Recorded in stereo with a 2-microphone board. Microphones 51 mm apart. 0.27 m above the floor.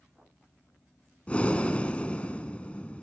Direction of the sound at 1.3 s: 20° left (ahead or behind).